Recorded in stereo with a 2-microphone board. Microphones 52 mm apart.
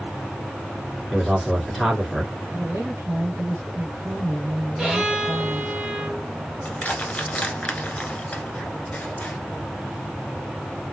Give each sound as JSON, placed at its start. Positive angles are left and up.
{"t": 1.1, "sound": "a man speaking", "side_deg": 0, "distance_m": 1.9}
{"t": 2.5, "sound": "a woman speaking", "side_deg": -50, "distance_m": 1.9}
{"t": 4.8, "sound": "a violin", "side_deg": 0, "distance_m": 2.5}
{"t": 6.7, "sound": "crushing", "side_deg": 25, "distance_m": 1.1}